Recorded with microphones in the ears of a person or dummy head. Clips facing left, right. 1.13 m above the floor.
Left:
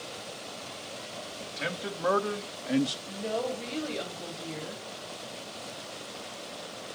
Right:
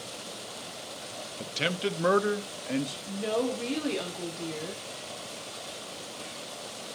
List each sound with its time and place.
1.4 s a man speaking: 45° right (ahead or behind), 0.9 m; by 3.0 s 15° left (ahead or behind), 0.5 m
3.1 s a woman speaking: 85° right, 3.5 m